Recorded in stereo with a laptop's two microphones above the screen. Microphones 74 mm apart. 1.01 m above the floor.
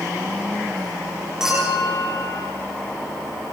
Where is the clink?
10° right (ahead or behind), 9.5 m.